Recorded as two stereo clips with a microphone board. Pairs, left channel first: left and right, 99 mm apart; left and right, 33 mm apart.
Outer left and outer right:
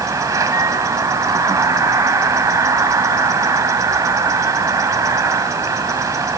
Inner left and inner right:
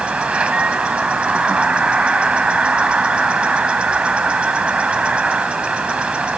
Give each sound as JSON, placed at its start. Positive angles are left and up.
{"t": 0.0, "sound": "an insect", "side_deg": -35, "distance_m": 1.1}